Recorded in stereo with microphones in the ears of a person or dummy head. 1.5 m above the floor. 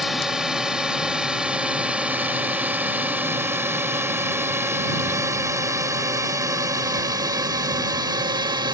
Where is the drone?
Centre (ahead or behind); by 8.7 s 20° right (ahead or behind).